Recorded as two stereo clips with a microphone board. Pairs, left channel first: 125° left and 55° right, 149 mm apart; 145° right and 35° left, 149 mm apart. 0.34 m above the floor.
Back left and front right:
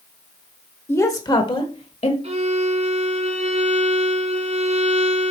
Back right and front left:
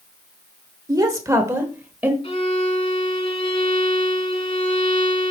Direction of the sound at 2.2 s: 100° right.